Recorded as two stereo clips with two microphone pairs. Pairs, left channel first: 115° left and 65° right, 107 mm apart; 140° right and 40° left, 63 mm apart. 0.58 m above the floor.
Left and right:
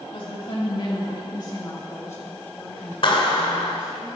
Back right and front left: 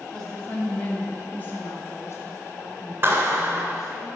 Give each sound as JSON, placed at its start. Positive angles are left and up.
{"t": 0.1, "sound": "a woman speaking", "azimuth_deg": 140, "distance_m": 4.0}
{"t": 3.0, "sound": "a clap", "azimuth_deg": 90, "distance_m": 2.0}